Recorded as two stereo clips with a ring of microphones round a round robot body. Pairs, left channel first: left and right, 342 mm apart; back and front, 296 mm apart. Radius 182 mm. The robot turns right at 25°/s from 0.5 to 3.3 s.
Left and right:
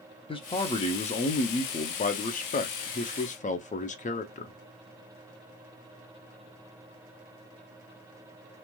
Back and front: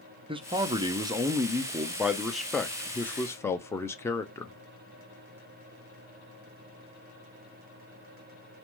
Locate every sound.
0.3 s a man speaking: 40° left, 0.6 m; by 4.6 s 110° left, 0.6 m